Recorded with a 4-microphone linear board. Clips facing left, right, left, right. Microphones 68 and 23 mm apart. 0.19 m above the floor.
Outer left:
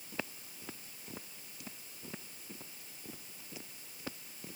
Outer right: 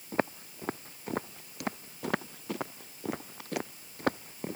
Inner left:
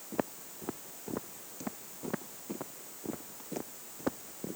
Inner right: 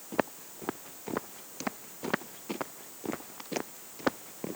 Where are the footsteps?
45° right (ahead or behind); by 4.6 s 55° right (ahead or behind).